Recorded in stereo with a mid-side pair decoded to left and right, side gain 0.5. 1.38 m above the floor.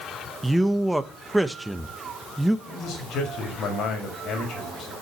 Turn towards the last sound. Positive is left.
turn(degrees=65)